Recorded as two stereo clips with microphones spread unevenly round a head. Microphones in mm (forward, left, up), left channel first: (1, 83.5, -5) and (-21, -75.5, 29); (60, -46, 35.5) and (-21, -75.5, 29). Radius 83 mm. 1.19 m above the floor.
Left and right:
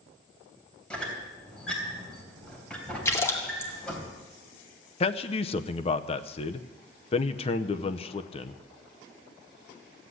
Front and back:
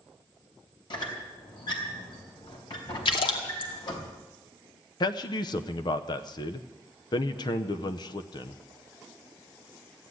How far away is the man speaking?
About 0.8 m.